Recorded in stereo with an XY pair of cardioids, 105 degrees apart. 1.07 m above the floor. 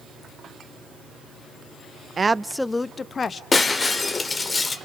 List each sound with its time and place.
2.2 s a woman speaking: 40° right, 0.5 m; by 3.4 s 40° left, 1.2 m
3.5 s breaking glass: 25° left, 1.5 m